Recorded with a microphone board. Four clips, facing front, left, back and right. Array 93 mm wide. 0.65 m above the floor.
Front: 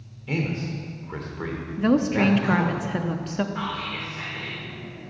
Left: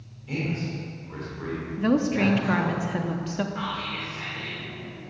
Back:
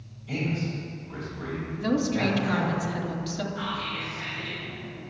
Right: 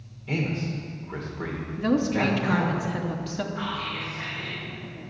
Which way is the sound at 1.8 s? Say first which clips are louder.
Left 1 dB, front 5 dB; 15° left.